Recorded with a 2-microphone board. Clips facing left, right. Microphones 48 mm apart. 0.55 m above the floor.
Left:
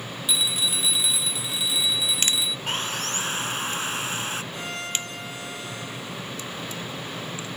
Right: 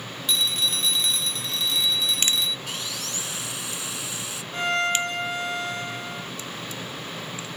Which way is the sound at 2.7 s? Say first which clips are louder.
Left 5 dB; 45° left (ahead or behind).